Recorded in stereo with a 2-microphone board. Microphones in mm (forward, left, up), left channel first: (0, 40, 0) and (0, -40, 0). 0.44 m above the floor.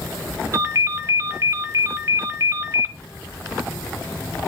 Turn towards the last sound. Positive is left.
turn(degrees=-45)  # may be behind; listen again after turning